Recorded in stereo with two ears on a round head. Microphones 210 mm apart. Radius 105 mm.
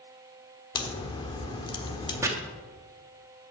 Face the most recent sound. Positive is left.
turn(degrees=-15)  # may be behind; listen again after turning